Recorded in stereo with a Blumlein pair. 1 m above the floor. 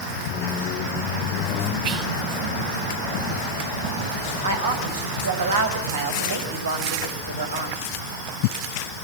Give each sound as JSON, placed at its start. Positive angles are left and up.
{"t": 0.3, "sound": "a squeak", "azimuth_deg": 35, "distance_m": 1.6}
{"t": 1.8, "sound": "whispering", "azimuth_deg": -45, "distance_m": 3.5}
{"t": 4.4, "sound": "a woman speaking", "azimuth_deg": -65, "distance_m": 5.5}